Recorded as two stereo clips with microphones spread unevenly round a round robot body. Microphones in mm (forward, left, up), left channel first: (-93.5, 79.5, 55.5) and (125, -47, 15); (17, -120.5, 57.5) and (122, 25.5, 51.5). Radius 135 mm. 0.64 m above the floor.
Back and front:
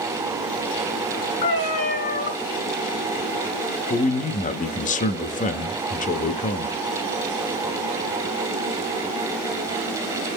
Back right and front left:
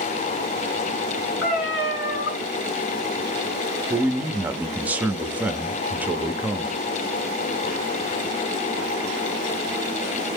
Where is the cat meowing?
155° right, 3.5 m.